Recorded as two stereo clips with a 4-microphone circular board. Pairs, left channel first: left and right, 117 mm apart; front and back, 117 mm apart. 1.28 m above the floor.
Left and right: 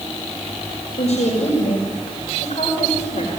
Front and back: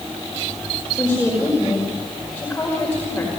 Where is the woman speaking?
75° left, 5 m.